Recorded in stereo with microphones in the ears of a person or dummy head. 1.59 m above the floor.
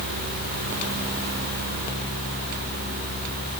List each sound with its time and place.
Only background noise.